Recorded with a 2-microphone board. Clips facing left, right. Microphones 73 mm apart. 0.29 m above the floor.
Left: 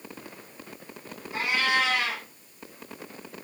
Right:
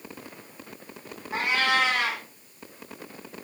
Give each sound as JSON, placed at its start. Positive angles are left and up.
{"t": 1.3, "sound": "a cat meowing", "side_deg": -80, "distance_m": 4.5}